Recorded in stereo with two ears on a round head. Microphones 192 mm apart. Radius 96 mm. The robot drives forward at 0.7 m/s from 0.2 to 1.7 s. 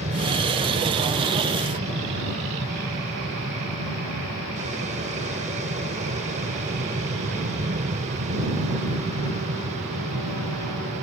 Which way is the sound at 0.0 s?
30° right (ahead or behind).